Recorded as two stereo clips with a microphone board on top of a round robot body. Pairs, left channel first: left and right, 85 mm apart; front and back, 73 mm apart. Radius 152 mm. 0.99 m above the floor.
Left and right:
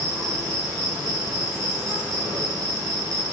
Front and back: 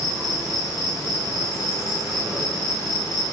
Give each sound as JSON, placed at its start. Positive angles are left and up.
{"t": 0.0, "sound": "an insect", "azimuth_deg": -40, "distance_m": 8.5}